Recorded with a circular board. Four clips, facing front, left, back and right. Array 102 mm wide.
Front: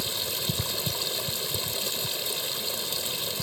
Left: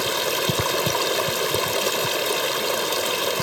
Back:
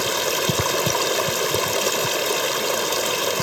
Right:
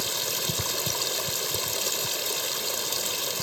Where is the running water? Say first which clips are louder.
Left 10 dB, back 13 dB; 140° left.